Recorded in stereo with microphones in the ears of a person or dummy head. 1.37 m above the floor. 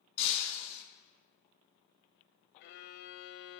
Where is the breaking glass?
70° left (ahead or behind), 7.5 m.